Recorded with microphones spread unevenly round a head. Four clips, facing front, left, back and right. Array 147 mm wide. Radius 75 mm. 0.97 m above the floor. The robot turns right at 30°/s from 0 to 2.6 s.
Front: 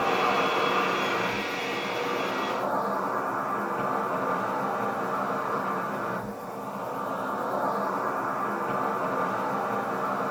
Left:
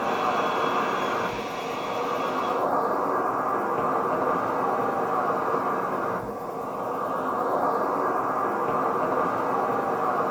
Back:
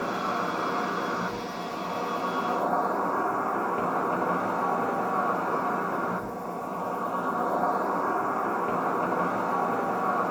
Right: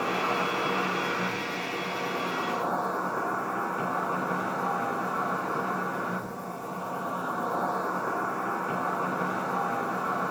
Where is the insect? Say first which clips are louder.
Left 4 dB, front 4 dB; 25° left, 5 m; by 10.3 s 105° left, 5 m.